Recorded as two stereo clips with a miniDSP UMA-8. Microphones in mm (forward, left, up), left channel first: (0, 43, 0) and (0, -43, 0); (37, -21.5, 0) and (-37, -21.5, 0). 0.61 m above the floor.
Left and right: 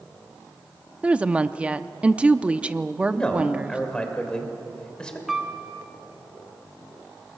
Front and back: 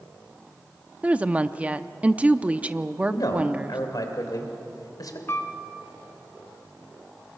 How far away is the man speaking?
About 3 m.